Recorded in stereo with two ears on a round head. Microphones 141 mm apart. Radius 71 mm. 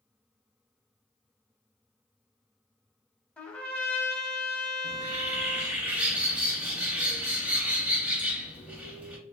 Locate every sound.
3.4 s a trumpet: 10° left (ahead or behind), 0.6 m
4.8 s a bird: 10° right (ahead or behind), 0.6 m